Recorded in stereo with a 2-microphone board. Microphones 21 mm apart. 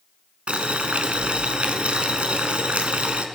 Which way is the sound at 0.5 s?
75° right (ahead or behind).